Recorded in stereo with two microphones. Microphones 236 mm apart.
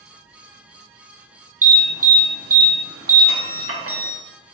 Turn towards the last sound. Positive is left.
turn(degrees=-70)  # may be behind; listen again after turning